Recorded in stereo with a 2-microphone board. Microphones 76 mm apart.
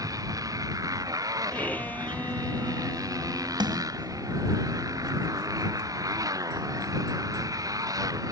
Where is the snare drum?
75° right (ahead or behind).